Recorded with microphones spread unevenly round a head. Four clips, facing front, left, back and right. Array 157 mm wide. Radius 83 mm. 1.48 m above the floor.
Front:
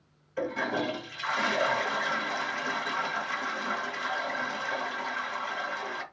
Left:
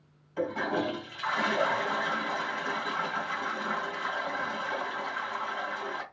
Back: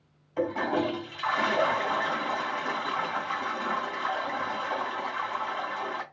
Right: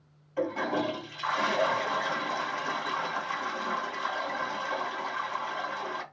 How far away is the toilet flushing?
About 2.5 m.